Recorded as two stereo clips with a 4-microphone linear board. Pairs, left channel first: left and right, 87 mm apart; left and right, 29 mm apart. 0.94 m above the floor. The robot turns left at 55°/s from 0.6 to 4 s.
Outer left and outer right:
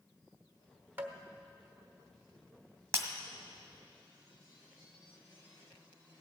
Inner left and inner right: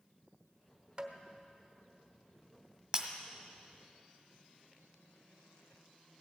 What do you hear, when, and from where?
1.0 s tapping: 25° right (ahead or behind), 1.2 m; by 1.1 s 35° right (ahead or behind), 1.2 m
2.9 s breaking glass: 30° right (ahead or behind), 1.4 m; by 3.1 s 25° right (ahead or behind), 1.4 m